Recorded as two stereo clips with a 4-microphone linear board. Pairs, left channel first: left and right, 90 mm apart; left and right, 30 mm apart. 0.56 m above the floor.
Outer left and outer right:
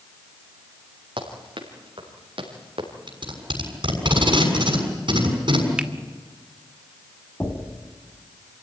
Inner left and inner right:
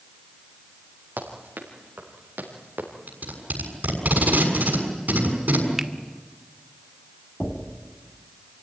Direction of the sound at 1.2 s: 75° right (ahead or behind).